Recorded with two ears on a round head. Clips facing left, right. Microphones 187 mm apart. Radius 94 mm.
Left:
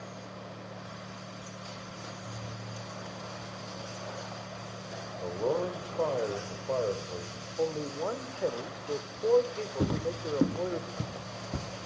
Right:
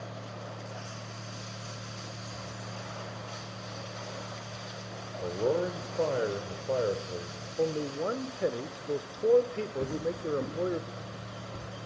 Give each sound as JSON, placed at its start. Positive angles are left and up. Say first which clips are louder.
{"t": 5.2, "sound": "a man speaking", "louder": "right 2 dB", "side_deg": -20, "distance_m": 1.0}
{"t": 7.6, "sound": "a man speaking", "louder": "right 2 dB", "side_deg": -20, "distance_m": 0.8}
{"t": 9.8, "sound": "footsteps", "louder": "left 3 dB", "side_deg": 60, "distance_m": 0.8}